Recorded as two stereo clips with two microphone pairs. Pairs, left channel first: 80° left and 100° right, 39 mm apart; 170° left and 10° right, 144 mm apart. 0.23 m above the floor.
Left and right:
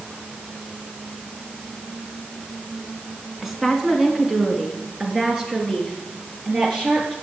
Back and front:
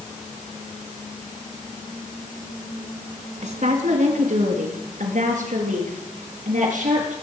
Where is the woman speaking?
15° right, 2 m; by 7.1 s 35° right, 5.5 m.